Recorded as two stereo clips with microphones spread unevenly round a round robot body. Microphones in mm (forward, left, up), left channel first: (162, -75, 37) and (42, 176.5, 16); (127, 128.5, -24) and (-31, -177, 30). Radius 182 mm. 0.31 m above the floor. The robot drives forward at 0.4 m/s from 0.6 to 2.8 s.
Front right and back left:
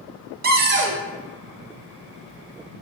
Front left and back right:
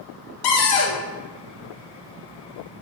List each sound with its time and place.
0.4 s a cupboard door: 60° left, 0.5 m; by 1.0 s 75° left, 0.5 m